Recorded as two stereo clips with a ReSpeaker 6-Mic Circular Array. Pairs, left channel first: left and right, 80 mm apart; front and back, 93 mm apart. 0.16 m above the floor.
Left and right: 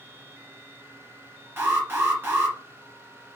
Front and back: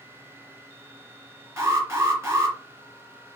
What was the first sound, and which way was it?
An alarm, 135° right.